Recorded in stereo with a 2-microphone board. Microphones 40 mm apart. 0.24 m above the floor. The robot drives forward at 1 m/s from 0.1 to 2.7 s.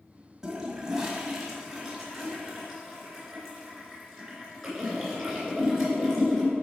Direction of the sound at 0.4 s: 20° right (ahead or behind).